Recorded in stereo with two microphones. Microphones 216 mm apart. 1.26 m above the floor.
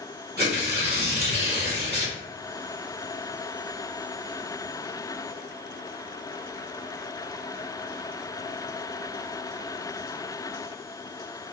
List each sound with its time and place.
0.4 s tearing paper: 50° right (ahead or behind), 1.4 m